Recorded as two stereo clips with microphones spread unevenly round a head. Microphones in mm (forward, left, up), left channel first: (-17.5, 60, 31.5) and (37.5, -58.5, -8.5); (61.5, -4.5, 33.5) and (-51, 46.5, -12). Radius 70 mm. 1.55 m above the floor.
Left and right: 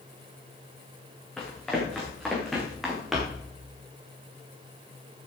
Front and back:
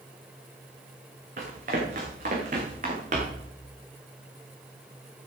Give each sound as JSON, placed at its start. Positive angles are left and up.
{"t": 1.4, "sound": "running footsteps", "azimuth_deg": -165, "distance_m": 5.5}